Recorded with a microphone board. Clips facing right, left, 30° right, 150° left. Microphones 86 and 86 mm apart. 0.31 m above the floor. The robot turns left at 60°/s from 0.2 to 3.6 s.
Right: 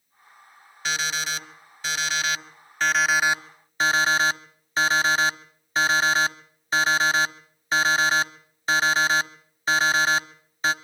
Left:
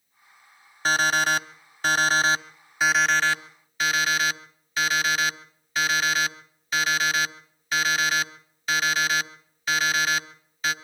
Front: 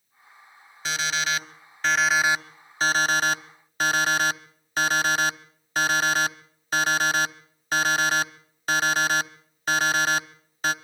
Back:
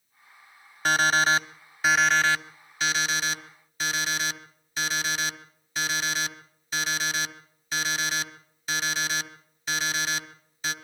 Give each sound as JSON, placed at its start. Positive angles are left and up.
{"t": 0.8, "sound": "an alarm clock", "azimuth_deg": 130, "distance_m": 0.9}